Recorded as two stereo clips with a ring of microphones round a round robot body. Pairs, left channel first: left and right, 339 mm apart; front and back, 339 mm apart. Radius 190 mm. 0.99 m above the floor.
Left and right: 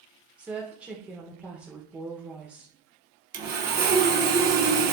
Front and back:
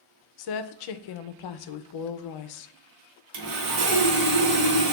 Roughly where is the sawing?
Behind right.